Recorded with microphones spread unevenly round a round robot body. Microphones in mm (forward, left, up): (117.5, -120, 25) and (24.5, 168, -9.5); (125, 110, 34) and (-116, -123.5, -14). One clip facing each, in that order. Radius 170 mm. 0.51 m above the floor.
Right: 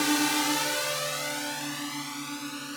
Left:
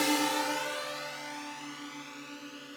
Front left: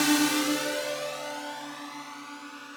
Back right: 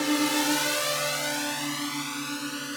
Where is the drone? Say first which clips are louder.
Right 3 dB, front left 1 dB; 10° right; by 2.8 s 110° right.